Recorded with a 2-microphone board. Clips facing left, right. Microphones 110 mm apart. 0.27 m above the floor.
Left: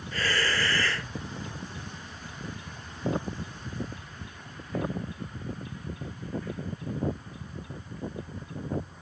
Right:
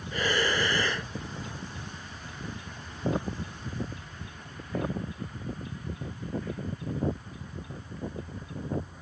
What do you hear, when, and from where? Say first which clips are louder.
0.1 s breathing: right 2 dB; 20° right (ahead or behind)